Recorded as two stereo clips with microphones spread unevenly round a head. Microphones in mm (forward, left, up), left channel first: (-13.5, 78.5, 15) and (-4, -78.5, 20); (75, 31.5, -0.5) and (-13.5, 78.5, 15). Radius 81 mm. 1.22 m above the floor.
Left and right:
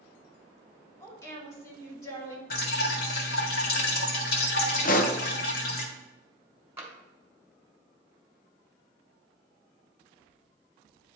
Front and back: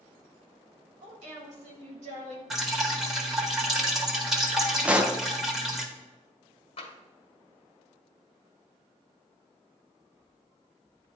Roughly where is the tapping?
Ahead.